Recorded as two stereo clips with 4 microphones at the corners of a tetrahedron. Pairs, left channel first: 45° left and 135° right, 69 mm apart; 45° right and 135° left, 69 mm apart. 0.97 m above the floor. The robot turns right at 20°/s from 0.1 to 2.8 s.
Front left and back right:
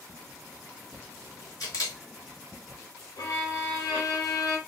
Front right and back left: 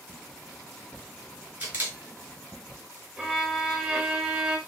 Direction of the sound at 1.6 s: 70° left.